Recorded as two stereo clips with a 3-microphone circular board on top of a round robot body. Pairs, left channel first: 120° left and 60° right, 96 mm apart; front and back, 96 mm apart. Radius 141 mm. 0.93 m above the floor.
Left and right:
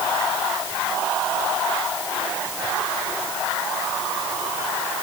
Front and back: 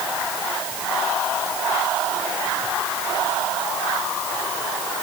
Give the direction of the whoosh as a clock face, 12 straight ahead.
No whoosh in this recording.